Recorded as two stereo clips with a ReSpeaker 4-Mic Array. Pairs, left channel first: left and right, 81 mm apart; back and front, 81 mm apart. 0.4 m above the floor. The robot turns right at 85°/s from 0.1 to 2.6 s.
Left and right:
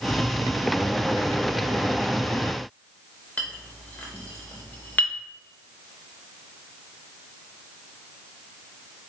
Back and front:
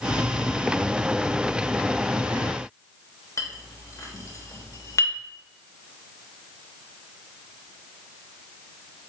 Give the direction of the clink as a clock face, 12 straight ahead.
7 o'clock.